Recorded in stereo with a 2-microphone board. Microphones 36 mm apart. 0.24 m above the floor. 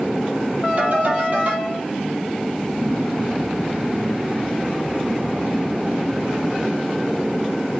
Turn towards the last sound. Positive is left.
turn(degrees=-45)  # may be behind; listen again after turning